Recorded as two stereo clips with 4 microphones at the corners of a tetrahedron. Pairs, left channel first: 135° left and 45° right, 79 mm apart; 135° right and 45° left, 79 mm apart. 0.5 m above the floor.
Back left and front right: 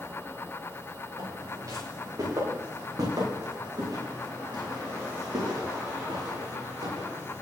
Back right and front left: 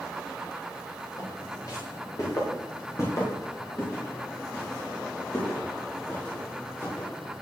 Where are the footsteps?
90° right, 9 m; by 7.4 s 65° right, 11 m.